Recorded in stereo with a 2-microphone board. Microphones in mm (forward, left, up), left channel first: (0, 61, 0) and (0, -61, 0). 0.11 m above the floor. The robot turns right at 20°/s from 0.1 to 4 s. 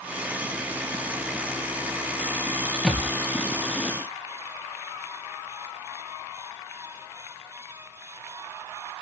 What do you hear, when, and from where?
2.8 s a thud: centre (ahead or behind), 1.5 m; by 3.1 s 5° left (ahead or behind), 1.5 m